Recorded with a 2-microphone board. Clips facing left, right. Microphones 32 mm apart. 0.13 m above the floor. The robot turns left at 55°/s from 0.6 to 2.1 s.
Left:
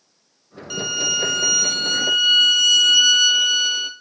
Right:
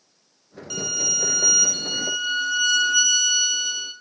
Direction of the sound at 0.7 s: 160° left.